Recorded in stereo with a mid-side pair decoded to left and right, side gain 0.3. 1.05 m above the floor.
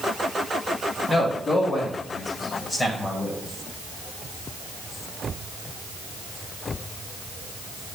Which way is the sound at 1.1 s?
55° left.